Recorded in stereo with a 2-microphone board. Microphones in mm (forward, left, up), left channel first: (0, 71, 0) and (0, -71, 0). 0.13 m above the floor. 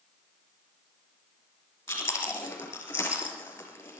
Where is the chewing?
15° left (ahead or behind), 6 m.